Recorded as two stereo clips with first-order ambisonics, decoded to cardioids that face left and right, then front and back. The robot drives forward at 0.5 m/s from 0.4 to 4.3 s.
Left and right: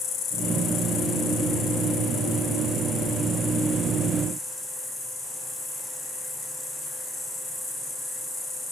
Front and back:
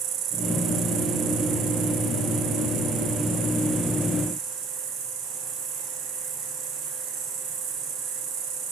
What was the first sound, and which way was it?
An insect, 140° left.